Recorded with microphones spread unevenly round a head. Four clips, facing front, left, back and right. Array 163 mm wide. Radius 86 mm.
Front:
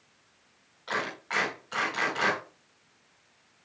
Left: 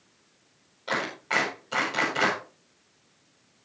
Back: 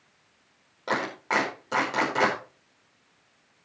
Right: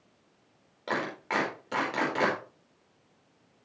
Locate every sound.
0.9 s a clap: 150° right, 4.5 m